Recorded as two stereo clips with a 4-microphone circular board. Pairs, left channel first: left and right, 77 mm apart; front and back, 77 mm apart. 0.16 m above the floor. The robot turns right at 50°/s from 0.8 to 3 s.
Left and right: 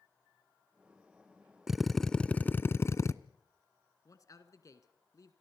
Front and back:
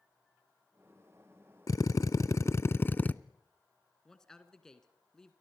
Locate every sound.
1.7 s a drill: 10° right, 0.5 m; by 3.1 s 60° left, 0.5 m
4.0 s a man speaking: 80° left, 1.8 m